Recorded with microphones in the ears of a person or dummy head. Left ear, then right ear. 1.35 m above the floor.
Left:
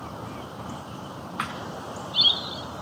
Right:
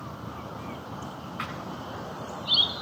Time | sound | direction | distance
1.4 | a thud | 20° left (ahead or behind) | 2.5 m